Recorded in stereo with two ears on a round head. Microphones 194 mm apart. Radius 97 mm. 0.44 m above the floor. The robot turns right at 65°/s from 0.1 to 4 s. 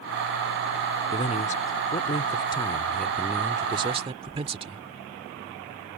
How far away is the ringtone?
No ringtone in this recording.